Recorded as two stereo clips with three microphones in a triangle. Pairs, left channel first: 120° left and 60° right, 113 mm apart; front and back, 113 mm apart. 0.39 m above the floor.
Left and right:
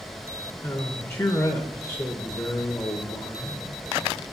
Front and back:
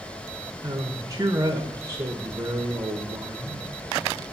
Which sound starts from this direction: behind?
A man speaking, at 0.6 s.